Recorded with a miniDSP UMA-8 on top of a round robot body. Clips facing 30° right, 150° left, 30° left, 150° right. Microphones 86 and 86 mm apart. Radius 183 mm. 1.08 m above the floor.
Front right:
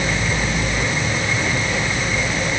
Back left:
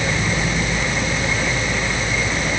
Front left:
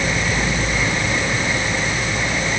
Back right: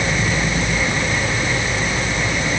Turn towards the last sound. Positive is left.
No sound to turn to.